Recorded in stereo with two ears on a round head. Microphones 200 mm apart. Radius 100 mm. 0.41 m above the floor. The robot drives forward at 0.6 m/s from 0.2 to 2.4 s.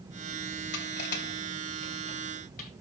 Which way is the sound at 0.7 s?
50° left (ahead or behind).